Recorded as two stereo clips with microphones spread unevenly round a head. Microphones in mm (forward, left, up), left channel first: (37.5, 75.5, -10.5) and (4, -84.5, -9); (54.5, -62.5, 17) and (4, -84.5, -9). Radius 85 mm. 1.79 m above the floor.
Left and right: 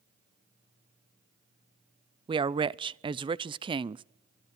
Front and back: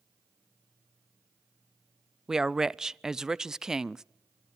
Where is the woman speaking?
55° right, 0.5 m.